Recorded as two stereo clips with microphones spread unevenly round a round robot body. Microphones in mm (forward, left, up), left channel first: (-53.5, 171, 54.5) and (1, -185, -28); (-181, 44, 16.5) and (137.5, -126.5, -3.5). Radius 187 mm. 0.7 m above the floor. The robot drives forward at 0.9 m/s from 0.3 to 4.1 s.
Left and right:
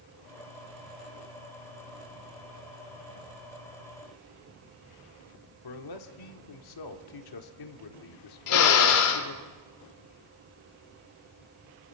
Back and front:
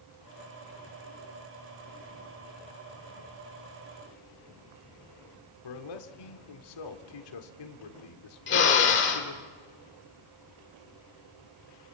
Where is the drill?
90° left, 2.5 m.